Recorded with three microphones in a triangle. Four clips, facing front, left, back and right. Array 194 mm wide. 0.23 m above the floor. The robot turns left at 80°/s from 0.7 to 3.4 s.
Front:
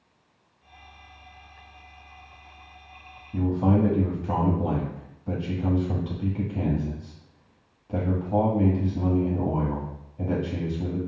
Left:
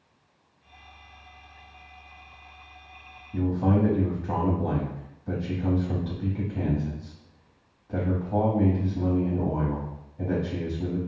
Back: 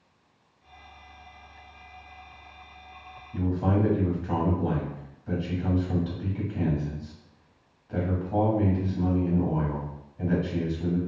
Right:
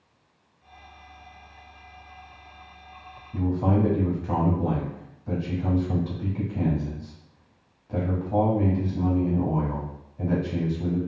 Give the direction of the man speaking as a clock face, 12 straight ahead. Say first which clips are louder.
Even, front 3 dB; 12 o'clock.